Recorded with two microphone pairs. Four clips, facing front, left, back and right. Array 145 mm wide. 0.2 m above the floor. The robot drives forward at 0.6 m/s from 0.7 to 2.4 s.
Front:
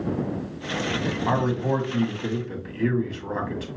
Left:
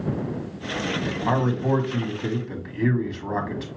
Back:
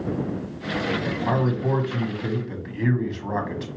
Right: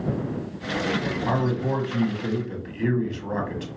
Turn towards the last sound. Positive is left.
turn(degrees=130)